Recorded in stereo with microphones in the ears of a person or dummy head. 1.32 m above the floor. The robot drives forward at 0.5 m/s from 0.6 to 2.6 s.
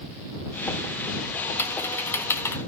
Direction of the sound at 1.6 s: 10° left (ahead or behind).